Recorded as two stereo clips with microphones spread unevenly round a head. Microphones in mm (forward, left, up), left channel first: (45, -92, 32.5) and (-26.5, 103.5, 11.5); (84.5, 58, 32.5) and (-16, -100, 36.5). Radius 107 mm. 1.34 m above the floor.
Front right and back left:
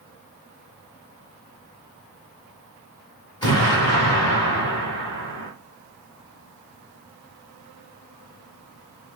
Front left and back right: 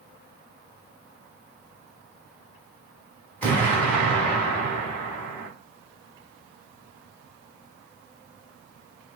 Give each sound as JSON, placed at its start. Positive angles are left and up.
{"t": 3.4, "sound": "an explosion", "azimuth_deg": -20, "distance_m": 1.5}